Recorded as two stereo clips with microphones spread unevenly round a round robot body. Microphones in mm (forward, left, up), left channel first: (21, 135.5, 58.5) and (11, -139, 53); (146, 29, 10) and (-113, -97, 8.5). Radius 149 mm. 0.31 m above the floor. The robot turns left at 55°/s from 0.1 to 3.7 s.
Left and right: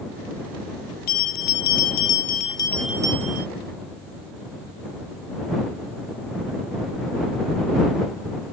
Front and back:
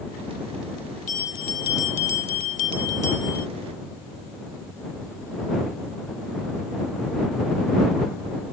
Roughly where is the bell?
Left.